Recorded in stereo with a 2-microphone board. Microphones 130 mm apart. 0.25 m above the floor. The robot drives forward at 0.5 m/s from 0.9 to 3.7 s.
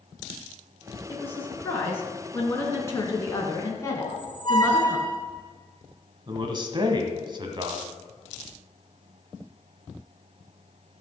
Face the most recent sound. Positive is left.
turn(degrees=-40)  # may be behind; listen again after turning